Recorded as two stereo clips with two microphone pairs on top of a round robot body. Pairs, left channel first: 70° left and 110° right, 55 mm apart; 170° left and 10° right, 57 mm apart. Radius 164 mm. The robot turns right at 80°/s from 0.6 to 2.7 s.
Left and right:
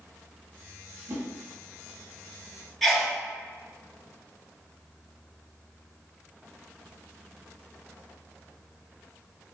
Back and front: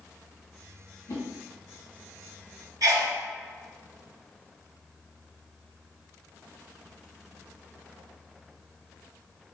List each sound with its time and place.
1.1 s a whoosh: 155° right, 0.7 m; by 1.2 s 145° right, 0.7 m
2.8 s a sneeze: 15° right, 1.2 m